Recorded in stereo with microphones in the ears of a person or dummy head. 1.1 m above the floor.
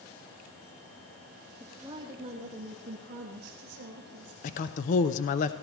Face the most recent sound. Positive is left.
turn(degrees=40)  # may be behind; listen again after turning